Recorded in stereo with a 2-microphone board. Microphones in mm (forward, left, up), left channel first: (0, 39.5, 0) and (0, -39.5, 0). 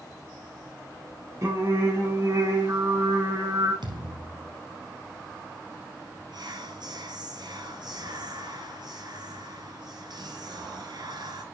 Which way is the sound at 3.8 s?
75° right (ahead or behind).